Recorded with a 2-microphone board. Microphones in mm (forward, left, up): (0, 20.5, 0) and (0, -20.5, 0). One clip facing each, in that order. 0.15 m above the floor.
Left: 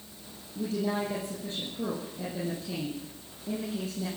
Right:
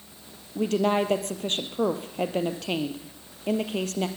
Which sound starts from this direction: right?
A woman speaking, at 0.6 s.